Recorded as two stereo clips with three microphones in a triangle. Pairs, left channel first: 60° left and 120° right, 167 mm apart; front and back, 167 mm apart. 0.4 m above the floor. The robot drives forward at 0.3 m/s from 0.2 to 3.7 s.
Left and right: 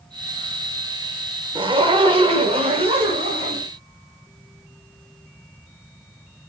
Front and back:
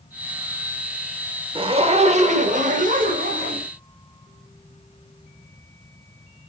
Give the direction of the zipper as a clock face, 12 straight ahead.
5 o'clock.